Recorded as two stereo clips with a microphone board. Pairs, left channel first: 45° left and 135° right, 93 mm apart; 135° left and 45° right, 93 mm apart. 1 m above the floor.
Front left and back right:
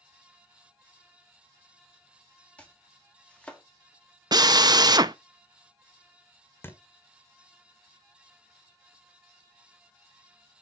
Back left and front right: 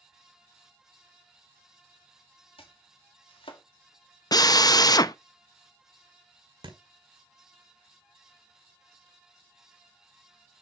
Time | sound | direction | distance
2.6 | chopping | 120° left | 1.7 m
4.3 | a drill | straight behind | 0.6 m
6.6 | a thud | 20° right | 1.6 m